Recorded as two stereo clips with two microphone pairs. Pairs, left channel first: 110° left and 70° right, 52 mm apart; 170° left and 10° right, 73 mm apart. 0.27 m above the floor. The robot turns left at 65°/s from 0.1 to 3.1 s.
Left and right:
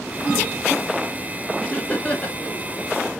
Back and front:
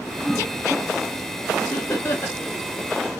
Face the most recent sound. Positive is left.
turn(degrees=85)